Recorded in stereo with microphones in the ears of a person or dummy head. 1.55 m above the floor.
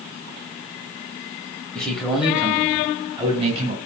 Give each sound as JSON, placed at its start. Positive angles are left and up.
{"t": 1.8, "sound": "a man speaking", "side_deg": 15, "distance_m": 1.2}